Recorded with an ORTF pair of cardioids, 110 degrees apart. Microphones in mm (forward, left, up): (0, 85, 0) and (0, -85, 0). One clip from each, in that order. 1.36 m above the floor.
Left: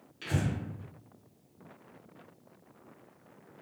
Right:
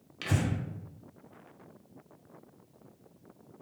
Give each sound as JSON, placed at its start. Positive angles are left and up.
{"t": 0.2, "sound": "breathing", "azimuth_deg": -50, "distance_m": 1.0}